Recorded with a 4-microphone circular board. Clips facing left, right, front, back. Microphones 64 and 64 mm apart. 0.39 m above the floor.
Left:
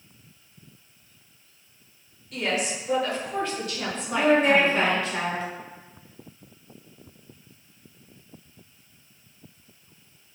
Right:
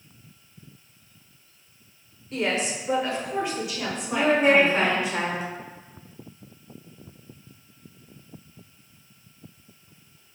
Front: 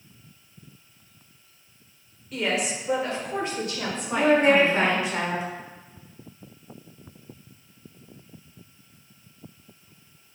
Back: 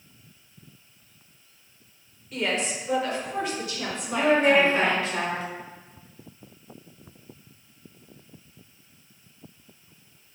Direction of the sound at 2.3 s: 95° right.